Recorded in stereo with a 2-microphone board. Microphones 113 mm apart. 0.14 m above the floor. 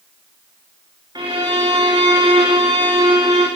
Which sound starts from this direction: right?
A violin, at 1.1 s.